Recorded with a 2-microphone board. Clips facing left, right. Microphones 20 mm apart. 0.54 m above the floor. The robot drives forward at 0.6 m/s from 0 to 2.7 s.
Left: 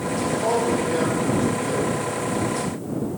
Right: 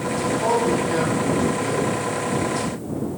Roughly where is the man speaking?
Right.